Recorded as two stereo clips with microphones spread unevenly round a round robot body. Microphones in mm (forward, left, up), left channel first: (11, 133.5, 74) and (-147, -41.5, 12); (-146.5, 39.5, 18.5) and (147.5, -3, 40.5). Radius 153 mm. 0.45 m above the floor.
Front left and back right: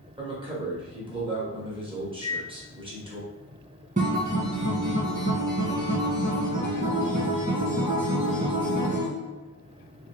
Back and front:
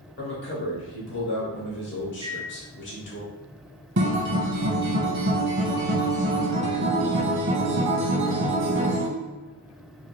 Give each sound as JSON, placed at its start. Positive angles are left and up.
{"t": 0.2, "sound": "a man speaking", "azimuth_deg": -170, "distance_m": 1.4}
{"t": 2.2, "sound": "a microwave", "azimuth_deg": -80, "distance_m": 0.6}
{"t": 4.0, "sound": "a guitar", "azimuth_deg": -60, "distance_m": 0.7}